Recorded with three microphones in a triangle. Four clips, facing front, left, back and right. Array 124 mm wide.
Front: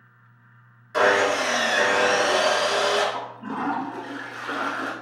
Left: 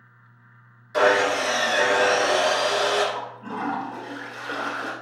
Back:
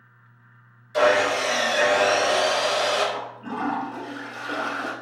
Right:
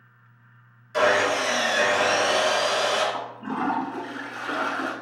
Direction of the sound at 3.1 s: 55° right.